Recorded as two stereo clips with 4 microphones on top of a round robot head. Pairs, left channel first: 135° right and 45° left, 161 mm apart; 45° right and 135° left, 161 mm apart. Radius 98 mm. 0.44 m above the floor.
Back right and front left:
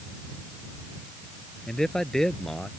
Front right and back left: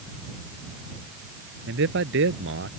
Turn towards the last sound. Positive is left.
turn(degrees=135)